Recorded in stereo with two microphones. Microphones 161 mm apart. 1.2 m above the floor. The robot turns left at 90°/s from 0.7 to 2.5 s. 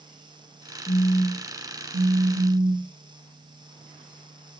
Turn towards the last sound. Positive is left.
turn(degrees=-130)